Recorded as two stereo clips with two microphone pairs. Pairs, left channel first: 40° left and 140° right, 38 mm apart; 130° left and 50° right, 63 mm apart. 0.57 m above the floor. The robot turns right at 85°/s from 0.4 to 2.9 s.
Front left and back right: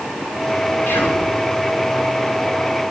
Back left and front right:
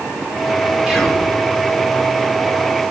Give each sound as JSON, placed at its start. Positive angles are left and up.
{"t": 0.9, "sound": "whispering", "azimuth_deg": 30, "distance_m": 7.5}